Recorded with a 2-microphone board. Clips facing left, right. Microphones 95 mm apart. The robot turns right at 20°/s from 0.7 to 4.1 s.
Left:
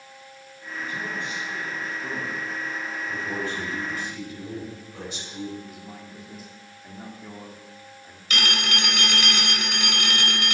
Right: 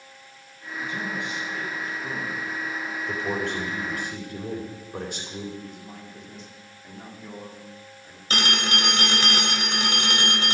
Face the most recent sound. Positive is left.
turn(degrees=-35)  # may be behind; listen again after turning